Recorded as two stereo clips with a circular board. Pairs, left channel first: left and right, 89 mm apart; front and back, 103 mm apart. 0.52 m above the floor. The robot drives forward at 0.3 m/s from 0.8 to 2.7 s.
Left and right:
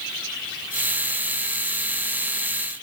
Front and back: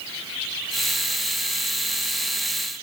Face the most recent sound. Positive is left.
No sound to turn to.